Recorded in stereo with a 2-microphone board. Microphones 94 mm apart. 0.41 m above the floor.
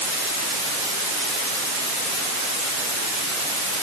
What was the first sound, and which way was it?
Only background noise.